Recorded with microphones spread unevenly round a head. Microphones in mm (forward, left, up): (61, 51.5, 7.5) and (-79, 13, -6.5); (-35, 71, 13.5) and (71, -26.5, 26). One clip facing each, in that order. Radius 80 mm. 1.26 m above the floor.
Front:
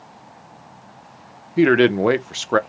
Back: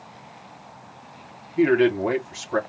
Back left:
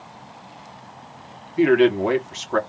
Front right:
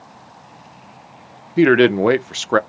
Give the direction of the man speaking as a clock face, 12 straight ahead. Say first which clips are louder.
Front 3 dB, front right 3 dB; 1 o'clock.